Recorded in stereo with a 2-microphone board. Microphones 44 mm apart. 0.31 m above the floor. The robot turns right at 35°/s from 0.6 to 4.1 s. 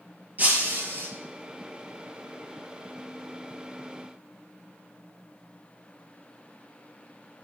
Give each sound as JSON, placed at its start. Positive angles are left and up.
{"t": 0.4, "sound": "breaking glass", "side_deg": -40, "distance_m": 2.5}